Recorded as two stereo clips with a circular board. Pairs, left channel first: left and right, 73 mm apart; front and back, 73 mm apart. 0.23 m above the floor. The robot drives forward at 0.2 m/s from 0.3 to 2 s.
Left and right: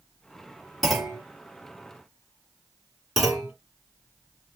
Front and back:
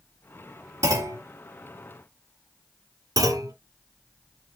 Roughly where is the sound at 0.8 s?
Behind.